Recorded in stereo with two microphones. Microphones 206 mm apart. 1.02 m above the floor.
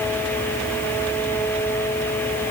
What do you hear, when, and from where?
Only background noise.